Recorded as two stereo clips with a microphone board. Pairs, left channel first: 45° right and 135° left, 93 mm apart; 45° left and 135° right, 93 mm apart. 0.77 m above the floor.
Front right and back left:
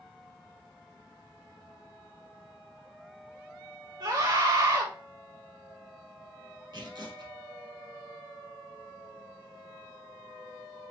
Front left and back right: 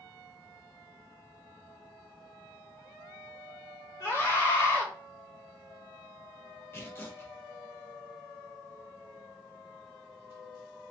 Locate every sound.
4.0 s a scream: 95° left, 1.9 m
6.7 s tearing paper: 105° left, 1.3 m